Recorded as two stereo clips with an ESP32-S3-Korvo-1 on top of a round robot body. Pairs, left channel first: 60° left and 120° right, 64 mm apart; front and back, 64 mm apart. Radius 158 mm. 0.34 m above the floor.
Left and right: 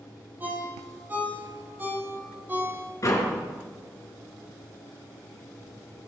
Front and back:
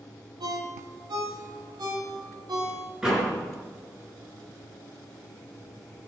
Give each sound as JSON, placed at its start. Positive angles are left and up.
{"t": 0.4, "sound": "a ringtone", "azimuth_deg": 180, "distance_m": 6.0}
{"t": 3.0, "sound": "a door slam", "azimuth_deg": 100, "distance_m": 5.0}